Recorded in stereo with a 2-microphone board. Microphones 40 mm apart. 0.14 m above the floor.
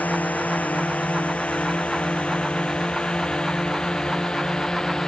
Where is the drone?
40° left (ahead or behind); by 5.1 s 15° left (ahead or behind).